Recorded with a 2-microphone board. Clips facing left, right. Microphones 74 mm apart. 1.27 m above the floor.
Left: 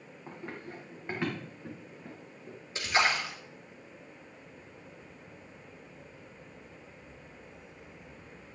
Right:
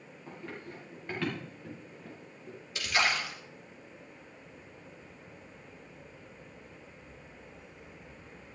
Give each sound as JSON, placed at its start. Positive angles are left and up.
{"t": 0.3, "sound": "running footsteps", "side_deg": 30, "distance_m": 4.5}
{"t": 2.8, "sound": "a splash", "side_deg": 30, "distance_m": 2.5}